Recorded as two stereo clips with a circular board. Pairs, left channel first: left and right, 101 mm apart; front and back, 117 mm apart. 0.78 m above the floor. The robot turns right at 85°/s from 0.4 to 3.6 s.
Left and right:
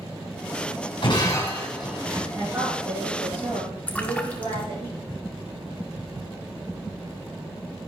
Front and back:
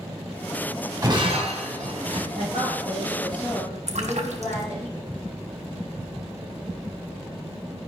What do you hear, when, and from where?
1.0 s breaking glass: 120° left, 2.5 m; by 2.2 s 140° right, 2.5 m
2.3 s a woman speaking: 175° right, 6.5 m; by 4.9 s 65° right, 6.5 m
3.9 s a splash: 165° left, 1.1 m